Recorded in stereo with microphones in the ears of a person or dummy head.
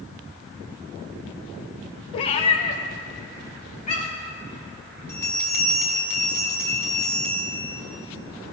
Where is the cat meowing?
30° left (ahead or behind), 0.8 m; by 4.3 s 45° left (ahead or behind), 2.5 m.